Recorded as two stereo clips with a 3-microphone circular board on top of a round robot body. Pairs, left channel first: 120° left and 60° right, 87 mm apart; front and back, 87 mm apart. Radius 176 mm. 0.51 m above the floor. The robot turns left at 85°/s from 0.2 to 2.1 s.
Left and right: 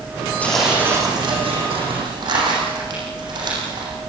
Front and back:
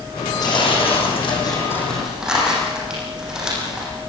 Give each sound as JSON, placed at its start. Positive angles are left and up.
{"t": 0.4, "sound": "tearing paper", "azimuth_deg": 50, "distance_m": 7.5}